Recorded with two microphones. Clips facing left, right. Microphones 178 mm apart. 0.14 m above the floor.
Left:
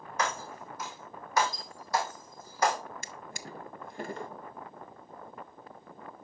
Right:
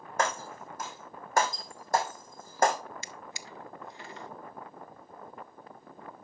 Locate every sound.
0.2 s breaking glass: 50° right (ahead or behind), 2.5 m
3.0 s a drawer: 50° left (ahead or behind), 0.5 m